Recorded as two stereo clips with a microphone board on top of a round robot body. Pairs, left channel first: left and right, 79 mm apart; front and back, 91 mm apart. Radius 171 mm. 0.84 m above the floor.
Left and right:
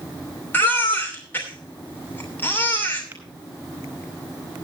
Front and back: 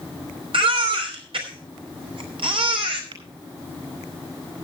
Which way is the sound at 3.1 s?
160° right.